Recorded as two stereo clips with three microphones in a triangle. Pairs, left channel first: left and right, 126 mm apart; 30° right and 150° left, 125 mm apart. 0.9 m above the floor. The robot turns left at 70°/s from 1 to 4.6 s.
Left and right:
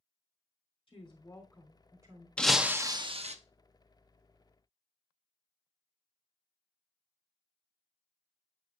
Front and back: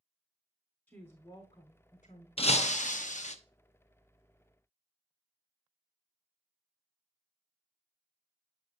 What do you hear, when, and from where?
0.9 s a woman speaking: 45° left, 3 m; by 2.3 s 45° right, 3 m
2.4 s breaking glass: 10° left, 0.7 m; by 3.4 s 60° right, 0.7 m